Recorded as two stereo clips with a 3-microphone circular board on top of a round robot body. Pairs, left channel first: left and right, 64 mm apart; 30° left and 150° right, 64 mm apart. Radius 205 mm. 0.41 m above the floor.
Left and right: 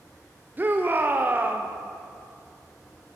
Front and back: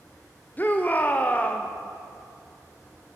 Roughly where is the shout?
Ahead right.